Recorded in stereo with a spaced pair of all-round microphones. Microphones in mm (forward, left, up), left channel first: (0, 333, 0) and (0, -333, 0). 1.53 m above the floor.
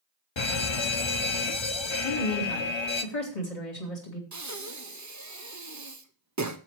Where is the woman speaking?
75° left (ahead or behind), 2.5 m.